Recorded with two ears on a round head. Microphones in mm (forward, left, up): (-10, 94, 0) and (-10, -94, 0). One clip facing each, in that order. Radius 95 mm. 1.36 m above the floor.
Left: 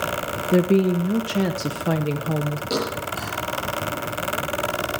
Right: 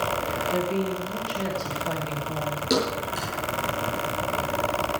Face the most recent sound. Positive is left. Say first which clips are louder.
# right 4 dB
turn(degrees=-20)  # may be behind; listen again after turning